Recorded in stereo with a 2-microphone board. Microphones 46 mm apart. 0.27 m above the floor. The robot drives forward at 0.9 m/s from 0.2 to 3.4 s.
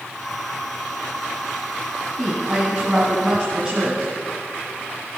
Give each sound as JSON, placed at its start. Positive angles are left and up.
{"t": 2.2, "sound": "a woman speaking", "side_deg": -30, "distance_m": 2.0}